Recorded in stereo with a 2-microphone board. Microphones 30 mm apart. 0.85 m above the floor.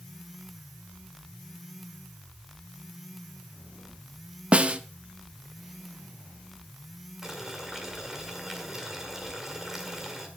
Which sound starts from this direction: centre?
Boiling, at 7.2 s.